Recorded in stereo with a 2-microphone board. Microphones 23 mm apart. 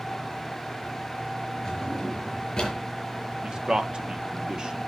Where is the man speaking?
35° right (ahead or behind), 1.1 m.